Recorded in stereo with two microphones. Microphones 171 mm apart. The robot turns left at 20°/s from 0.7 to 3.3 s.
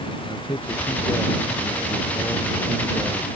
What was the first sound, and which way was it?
A man speaking, 40° left.